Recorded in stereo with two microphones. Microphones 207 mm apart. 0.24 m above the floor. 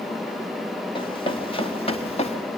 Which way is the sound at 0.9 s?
25° left (ahead or behind).